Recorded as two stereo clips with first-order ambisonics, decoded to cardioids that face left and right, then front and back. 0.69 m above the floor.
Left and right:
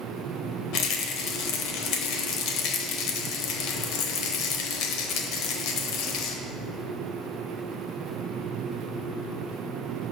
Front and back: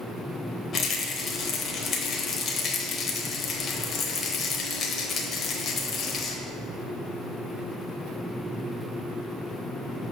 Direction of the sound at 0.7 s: 65° left.